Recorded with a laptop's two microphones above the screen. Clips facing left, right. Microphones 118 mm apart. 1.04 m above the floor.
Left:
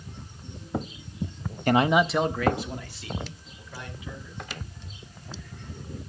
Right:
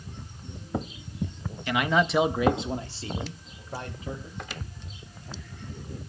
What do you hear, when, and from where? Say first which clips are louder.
1.7 s a man speaking: left 4 dB; 50° left (ahead or behind), 0.7 m; by 4.4 s 45° right (ahead or behind), 4 m